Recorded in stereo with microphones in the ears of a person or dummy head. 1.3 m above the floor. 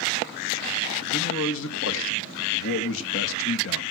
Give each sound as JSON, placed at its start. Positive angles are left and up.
{"t": 1.1, "sound": "a man speaking", "side_deg": 70, "distance_m": 2.0}